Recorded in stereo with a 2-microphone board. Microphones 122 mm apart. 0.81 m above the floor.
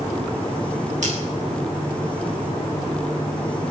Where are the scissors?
70° right (ahead or behind), 8.5 m.